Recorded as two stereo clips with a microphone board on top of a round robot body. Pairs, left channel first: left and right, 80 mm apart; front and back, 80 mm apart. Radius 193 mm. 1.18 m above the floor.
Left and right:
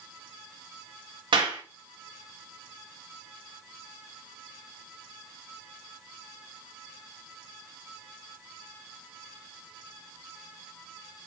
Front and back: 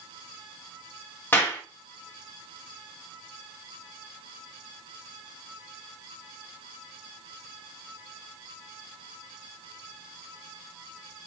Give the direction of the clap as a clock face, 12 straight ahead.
2 o'clock.